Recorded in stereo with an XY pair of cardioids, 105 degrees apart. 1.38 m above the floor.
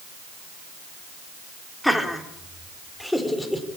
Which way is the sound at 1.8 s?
5° left.